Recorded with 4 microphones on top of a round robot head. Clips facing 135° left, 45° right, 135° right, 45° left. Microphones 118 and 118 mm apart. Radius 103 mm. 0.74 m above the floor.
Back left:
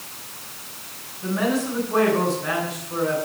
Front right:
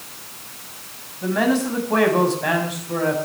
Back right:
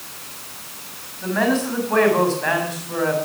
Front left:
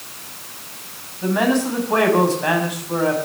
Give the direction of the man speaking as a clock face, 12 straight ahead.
1 o'clock.